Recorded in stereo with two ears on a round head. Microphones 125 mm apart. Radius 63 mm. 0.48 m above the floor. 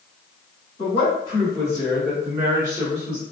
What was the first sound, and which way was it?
A woman speaking, 40° left (ahead or behind).